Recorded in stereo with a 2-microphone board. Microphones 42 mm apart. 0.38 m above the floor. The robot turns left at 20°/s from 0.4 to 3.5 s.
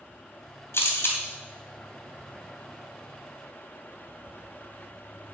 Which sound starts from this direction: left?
A camera shutter, at 0.7 s.